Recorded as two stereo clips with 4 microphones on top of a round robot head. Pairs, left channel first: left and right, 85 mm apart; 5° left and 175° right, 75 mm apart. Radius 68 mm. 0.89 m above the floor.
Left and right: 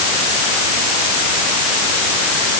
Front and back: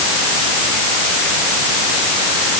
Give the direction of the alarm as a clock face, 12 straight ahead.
No alarm in this recording.